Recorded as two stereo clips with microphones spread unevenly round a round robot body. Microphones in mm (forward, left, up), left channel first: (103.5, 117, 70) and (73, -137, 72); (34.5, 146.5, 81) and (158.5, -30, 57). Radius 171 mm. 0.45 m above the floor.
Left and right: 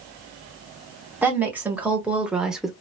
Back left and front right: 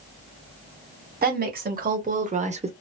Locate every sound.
1.2 s a woman speaking: 15° right, 2.5 m; by 2.7 s 10° right, 1.2 m